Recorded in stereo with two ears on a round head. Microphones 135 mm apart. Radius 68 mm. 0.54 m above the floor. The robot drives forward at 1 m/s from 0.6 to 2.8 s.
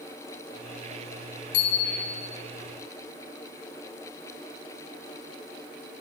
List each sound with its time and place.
1.5 s a bicycle bell: 80° left, 7 m; by 2.3 s 85° left, 6.5 m